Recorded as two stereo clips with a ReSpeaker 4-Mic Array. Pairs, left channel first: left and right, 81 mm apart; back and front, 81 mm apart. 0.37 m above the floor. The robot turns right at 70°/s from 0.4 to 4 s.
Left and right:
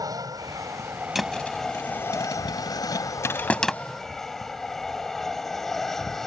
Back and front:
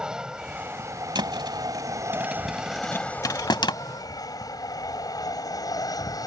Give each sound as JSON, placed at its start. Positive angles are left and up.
{"t": 0.0, "sound": "an aircraft", "azimuth_deg": -80}
{"t": 1.1, "sound": "a thud", "azimuth_deg": -5}